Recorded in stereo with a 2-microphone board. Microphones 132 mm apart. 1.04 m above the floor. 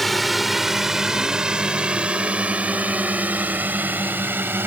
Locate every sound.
0.0 s a drone: centre (ahead or behind); by 4.7 s 15° right (ahead or behind)